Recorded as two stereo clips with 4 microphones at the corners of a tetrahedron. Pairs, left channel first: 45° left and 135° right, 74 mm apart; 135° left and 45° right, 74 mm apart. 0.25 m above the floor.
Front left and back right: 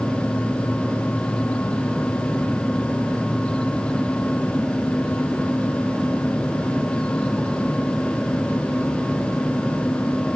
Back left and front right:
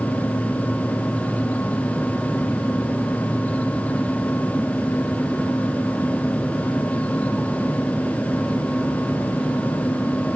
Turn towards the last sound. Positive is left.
No sound to turn to.